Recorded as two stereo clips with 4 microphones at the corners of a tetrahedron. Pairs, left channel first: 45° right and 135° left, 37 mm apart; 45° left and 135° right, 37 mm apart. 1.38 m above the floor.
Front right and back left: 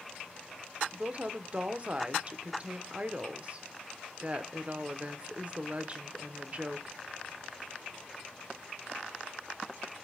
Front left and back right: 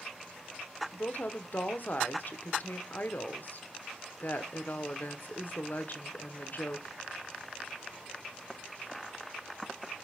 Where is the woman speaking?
80° left, 0.8 m.